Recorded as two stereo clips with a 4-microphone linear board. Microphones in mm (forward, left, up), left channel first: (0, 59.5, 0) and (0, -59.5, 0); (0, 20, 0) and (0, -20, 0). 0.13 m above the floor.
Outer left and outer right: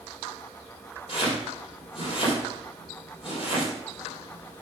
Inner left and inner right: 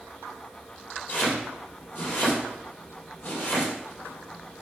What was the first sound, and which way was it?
Chopping, 50° left (ahead or behind).